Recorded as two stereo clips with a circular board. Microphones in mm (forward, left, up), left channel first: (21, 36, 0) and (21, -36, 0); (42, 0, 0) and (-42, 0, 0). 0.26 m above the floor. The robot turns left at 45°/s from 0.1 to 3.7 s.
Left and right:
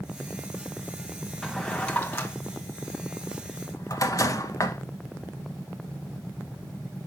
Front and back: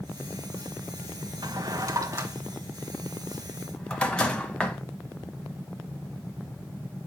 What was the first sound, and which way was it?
A drawer, 175° left.